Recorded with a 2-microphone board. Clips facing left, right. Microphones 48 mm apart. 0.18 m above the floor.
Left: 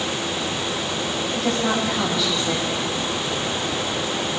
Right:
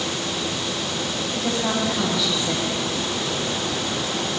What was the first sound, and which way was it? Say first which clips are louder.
A woman speaking: left 2 dB; centre (ahead or behind).